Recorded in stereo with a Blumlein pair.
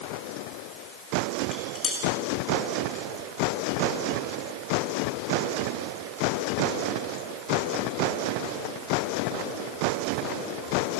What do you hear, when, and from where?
1.4 s dishes clattering: 25° left, 5.5 m